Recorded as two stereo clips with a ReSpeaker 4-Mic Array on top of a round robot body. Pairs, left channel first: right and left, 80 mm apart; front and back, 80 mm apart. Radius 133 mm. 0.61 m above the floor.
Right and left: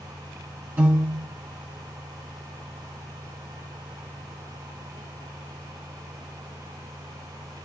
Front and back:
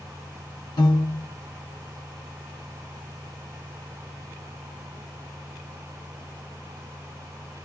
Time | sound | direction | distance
0.8 | a piano | 25° left | 1.9 m